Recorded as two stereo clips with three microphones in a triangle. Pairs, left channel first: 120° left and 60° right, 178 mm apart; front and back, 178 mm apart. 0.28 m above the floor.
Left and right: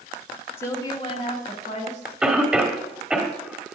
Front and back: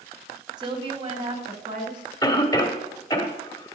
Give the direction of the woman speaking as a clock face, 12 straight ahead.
6 o'clock.